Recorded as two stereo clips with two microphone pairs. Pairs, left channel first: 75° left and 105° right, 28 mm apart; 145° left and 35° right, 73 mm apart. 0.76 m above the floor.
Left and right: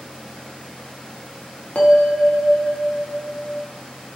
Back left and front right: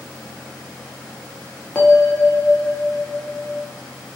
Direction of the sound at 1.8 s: 75° left.